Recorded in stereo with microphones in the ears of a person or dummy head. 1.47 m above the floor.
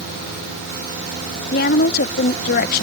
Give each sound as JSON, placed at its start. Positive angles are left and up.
{"t": 1.5, "sound": "a woman speaking", "side_deg": 55}